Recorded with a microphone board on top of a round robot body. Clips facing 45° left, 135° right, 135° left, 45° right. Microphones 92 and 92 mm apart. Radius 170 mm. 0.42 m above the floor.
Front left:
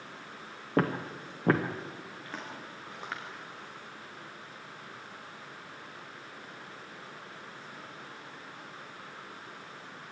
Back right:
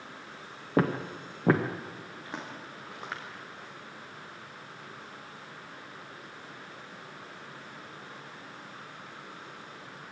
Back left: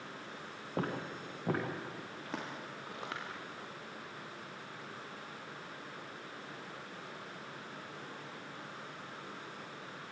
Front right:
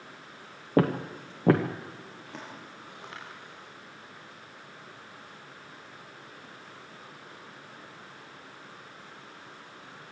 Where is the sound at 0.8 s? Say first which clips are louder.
Back right 2 dB, front right 12 dB; 50° right, 0.5 m.